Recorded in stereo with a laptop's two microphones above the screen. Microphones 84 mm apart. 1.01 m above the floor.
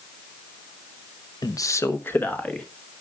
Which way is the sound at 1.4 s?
50° left (ahead or behind).